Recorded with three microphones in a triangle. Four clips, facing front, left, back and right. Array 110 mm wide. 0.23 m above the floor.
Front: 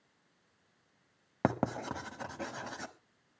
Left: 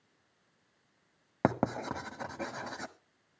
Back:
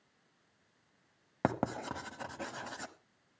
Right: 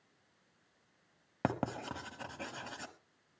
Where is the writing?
85° left, 1.3 m.